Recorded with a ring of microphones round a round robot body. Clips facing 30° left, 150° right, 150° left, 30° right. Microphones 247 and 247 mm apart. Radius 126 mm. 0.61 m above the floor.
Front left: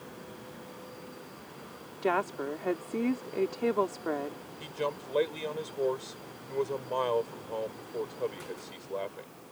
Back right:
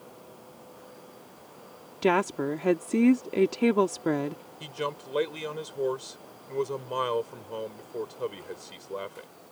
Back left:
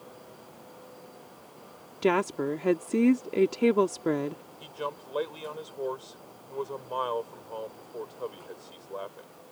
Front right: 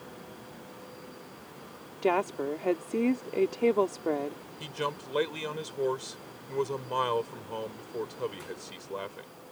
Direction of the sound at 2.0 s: 160° right.